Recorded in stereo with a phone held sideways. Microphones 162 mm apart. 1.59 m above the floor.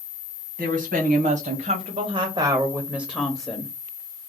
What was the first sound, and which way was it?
A woman speaking, 75° right (ahead or behind).